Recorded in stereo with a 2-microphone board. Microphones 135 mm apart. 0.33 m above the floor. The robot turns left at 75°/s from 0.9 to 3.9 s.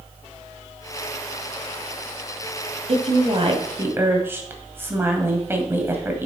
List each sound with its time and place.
2.9 s a woman speaking: 85° right, 1.9 m; by 6.3 s 160° right, 1.9 m